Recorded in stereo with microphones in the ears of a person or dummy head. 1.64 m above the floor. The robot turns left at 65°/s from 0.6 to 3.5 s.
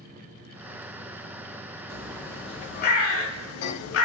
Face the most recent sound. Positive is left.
turn(degrees=85)